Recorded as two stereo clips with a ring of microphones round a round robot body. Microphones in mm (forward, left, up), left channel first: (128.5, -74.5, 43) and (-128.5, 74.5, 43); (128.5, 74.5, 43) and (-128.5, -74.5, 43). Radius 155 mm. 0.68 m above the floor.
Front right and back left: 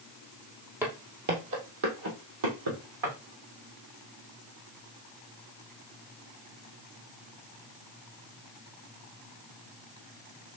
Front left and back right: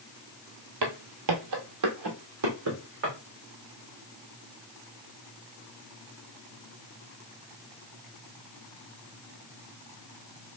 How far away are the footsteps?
About 1.2 m.